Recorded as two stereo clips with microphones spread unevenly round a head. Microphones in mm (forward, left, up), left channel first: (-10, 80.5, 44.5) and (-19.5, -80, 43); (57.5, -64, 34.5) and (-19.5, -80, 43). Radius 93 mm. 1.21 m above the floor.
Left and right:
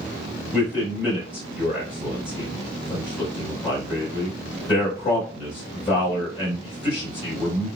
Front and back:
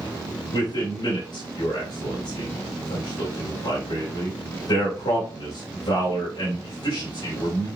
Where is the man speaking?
25° left, 3 m.